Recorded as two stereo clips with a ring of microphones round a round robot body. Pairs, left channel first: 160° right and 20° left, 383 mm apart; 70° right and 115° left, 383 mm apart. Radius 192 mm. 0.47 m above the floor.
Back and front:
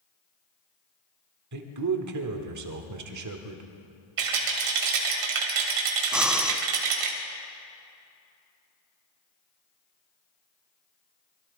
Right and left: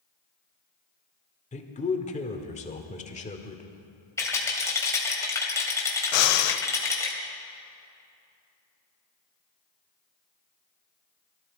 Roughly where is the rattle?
Ahead.